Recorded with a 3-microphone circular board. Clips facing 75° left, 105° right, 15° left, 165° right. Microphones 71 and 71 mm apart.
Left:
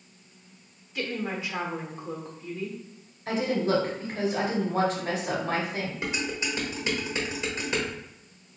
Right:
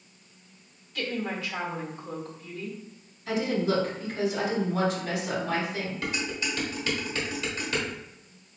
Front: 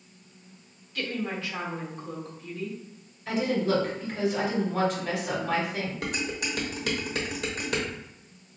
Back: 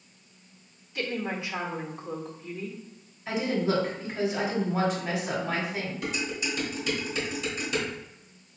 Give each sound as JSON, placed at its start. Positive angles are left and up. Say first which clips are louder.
{"t": 0.9, "sound": "a woman speaking", "louder": "even, even", "azimuth_deg": 135, "distance_m": 0.9}
{"t": 3.3, "sound": "a woman speaking", "louder": "left 1 dB, front 1 dB", "azimuth_deg": 110, "distance_m": 1.7}
{"t": 6.0, "sound": "dishes clattering", "louder": "left 1 dB, even", "azimuth_deg": 10, "distance_m": 0.9}